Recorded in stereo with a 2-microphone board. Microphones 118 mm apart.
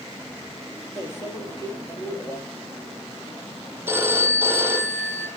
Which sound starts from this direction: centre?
A phone ringing, at 3.9 s.